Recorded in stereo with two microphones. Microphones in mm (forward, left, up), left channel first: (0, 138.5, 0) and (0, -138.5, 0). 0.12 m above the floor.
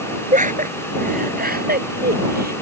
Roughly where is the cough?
No cough in this recording.